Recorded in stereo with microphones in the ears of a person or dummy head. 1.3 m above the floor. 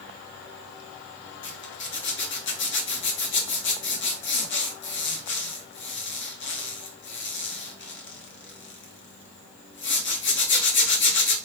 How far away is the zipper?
About 0.9 m.